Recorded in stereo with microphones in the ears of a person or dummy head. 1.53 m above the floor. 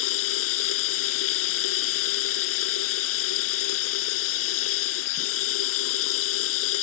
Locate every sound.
0.0 s running water: 75° left (ahead or behind)